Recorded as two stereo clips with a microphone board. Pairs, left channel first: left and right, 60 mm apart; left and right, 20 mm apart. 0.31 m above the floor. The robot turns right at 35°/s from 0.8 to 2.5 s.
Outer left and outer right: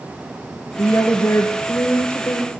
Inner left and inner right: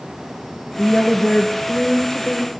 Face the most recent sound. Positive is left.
turn(degrees=165)